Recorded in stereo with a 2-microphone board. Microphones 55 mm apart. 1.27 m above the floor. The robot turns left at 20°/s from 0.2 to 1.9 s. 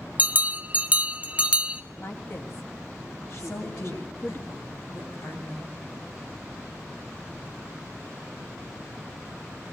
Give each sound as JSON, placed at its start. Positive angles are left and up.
{"t": 0.2, "sound": "a bell", "azimuth_deg": -105, "distance_m": 0.6}
{"t": 2.0, "sound": "a woman speaking", "side_deg": 55, "distance_m": 2.5}
{"t": 3.4, "sound": "a woman speaking", "side_deg": 90, "distance_m": 7.5}